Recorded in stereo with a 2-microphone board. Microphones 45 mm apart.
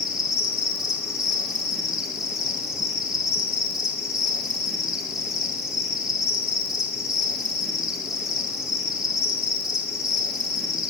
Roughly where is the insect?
Centre.